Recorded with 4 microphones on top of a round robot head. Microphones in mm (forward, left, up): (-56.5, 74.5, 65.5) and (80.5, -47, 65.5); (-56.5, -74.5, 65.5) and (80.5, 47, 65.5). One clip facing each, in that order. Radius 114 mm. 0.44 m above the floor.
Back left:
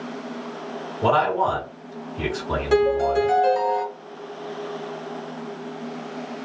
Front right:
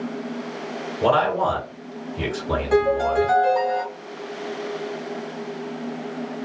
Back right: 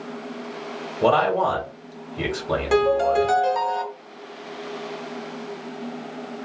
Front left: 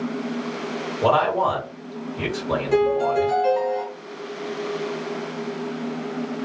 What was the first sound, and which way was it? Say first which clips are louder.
A man speaking: front right 1 dB, back right 1 dB; 60° right.